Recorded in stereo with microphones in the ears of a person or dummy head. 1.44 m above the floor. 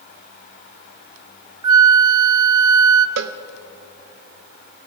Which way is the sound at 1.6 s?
25° right (ahead or behind).